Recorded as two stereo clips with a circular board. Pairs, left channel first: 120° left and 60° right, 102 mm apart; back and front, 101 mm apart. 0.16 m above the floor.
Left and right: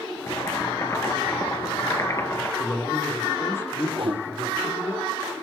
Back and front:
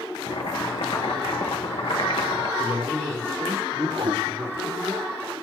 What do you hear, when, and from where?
0.3 s boiling: 175° left, 2 m
2.6 s a man speaking: 60° left, 3.5 m
3.9 s a whoosh: 35° right, 1.3 m